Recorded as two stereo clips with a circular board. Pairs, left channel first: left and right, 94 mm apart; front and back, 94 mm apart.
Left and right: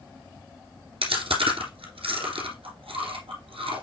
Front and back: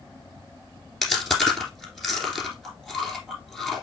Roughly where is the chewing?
Right.